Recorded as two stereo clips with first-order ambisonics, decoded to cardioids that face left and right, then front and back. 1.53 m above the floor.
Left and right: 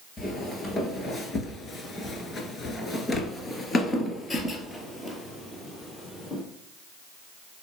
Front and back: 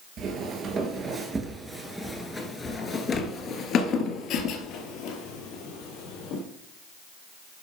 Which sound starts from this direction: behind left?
Footsteps, at 0.2 s.